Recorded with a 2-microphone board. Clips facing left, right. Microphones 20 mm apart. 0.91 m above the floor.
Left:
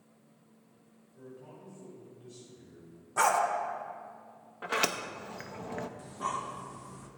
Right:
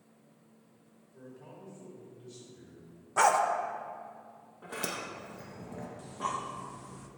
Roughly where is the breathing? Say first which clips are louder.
Right 2 dB; centre.